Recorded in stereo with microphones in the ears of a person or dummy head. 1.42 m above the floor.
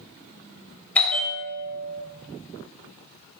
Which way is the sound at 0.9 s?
5° left (ahead or behind).